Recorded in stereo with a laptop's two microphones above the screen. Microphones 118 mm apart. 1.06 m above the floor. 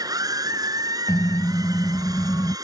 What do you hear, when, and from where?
0.0 s a machine running: 30° right (ahead or behind)
1.1 s a car horn: 30° left (ahead or behind)